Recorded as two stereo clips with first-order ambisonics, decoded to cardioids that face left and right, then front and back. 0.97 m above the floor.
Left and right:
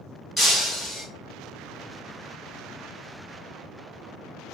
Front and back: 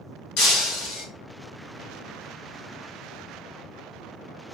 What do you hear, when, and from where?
0.4 s breaking glass: straight ahead, 1.2 m